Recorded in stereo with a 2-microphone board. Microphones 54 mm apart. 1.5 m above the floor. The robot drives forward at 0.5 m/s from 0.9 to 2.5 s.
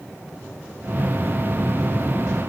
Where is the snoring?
No snoring in this recording.